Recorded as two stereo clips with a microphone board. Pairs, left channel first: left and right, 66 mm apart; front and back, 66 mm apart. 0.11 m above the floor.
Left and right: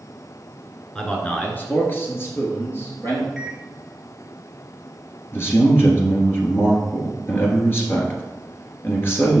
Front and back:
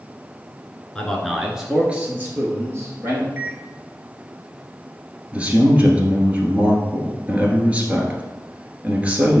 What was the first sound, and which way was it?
A man speaking, 45° left.